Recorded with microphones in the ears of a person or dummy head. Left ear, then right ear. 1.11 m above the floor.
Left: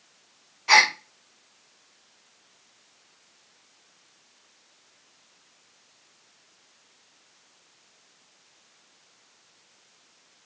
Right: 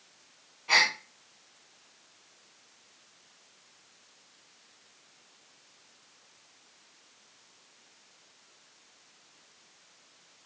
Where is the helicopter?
I don't hear a helicopter.